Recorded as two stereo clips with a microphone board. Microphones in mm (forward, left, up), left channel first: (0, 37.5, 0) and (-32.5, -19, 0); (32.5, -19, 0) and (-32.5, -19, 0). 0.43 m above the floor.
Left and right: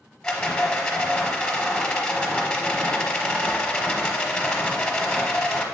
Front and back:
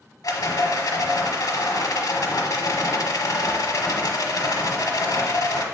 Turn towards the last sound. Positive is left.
turn(degrees=-20)